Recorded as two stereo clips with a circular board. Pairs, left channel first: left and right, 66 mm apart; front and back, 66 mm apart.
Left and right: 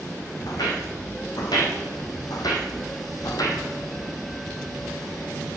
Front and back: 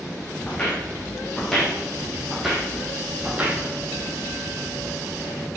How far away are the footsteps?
About 2.5 m.